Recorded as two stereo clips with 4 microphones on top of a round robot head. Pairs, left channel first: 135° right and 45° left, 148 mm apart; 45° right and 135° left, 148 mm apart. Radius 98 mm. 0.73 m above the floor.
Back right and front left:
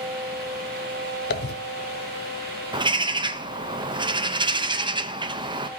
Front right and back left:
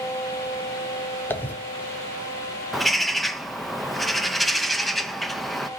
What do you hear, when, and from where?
1.3 s a dropped coin: 125° right, 1.1 m
2.7 s a bird: 45° left, 0.8 m